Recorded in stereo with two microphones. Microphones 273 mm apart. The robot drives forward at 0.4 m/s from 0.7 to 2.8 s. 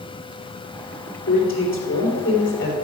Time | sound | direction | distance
1.3 | a man speaking | 50° left (ahead or behind) | 3.5 m